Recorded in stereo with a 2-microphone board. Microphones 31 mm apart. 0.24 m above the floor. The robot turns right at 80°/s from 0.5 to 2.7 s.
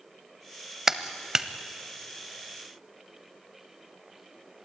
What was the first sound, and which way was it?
A clap, 15° right (ahead or behind).